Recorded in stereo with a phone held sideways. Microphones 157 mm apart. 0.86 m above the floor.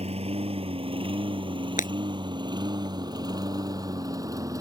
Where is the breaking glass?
55° left (ahead or behind).